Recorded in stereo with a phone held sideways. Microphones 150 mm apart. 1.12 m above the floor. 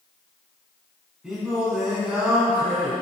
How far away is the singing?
About 3 m.